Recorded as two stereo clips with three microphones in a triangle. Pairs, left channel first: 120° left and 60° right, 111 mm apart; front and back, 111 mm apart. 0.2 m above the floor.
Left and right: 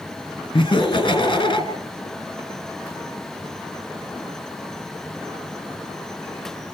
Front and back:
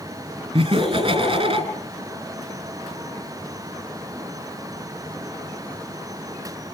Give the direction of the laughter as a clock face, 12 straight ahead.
7 o'clock.